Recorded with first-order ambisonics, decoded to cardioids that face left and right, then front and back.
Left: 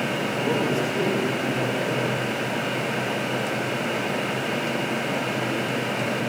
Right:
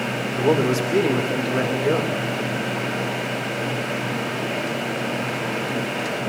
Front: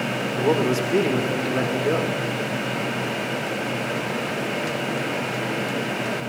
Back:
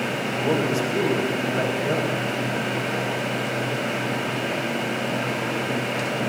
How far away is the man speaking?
About 2.5 m.